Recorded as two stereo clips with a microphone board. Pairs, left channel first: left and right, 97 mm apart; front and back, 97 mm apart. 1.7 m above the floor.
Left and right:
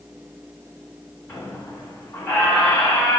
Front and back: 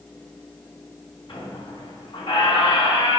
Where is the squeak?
30° left, 3 m.